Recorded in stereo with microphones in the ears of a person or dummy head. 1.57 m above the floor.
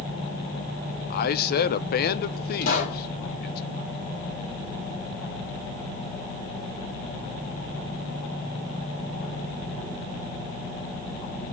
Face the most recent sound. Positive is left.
turn(degrees=60)  # may be behind; listen again after turning